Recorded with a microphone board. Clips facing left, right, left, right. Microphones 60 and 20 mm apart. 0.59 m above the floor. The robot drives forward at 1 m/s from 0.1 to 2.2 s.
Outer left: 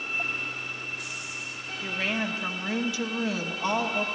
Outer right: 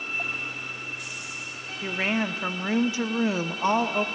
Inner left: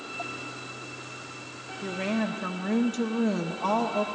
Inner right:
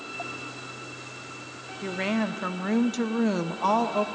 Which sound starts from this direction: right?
A woman speaking, at 1.8 s.